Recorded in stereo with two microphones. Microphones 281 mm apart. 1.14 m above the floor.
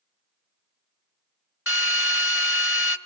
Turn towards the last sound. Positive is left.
turn(degrees=50)  # may be behind; listen again after turning